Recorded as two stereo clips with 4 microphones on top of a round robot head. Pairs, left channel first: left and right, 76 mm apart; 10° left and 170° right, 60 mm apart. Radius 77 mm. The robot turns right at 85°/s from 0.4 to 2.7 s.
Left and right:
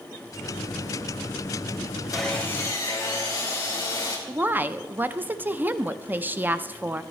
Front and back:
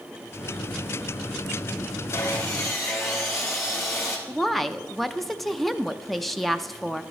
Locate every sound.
2.1 s sawing: 5° right, 3 m; by 4.2 s 45° left, 3 m
4.3 s a woman speaking: 75° right, 0.6 m